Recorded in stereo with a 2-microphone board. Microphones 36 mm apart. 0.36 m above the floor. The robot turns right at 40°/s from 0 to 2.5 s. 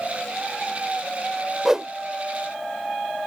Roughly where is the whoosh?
Centre.